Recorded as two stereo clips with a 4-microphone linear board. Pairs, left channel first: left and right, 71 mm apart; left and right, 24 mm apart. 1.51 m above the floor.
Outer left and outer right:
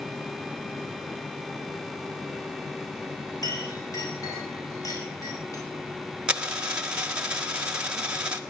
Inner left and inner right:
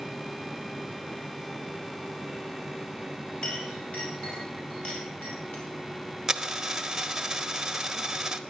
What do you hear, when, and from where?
3.4 s a clink: 55° left (ahead or behind), 5.5 m
6.3 s a dropped coin: 15° right (ahead or behind), 1.3 m